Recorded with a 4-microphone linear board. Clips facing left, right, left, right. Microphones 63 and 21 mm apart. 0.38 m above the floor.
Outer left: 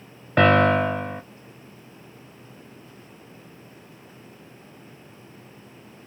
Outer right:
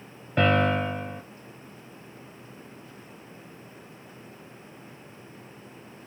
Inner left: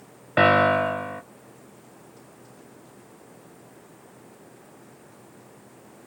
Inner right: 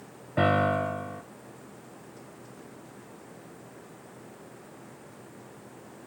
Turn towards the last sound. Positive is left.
turn(degrees=80)